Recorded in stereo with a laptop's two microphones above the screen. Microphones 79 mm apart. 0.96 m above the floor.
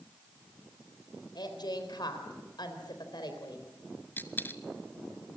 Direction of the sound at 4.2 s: 25° left (ahead or behind).